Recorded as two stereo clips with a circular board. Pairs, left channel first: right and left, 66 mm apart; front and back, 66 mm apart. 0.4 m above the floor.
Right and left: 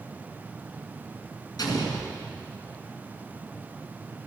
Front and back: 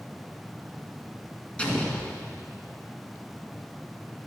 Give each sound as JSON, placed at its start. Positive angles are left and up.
{"t": 1.6, "sound": "an explosion", "azimuth_deg": -75, "distance_m": 1.7}